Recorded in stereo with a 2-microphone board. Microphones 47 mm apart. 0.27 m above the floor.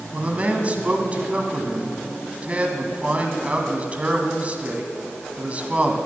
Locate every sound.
0.1 s a man speaking: 30° right (ahead or behind), 1.9 m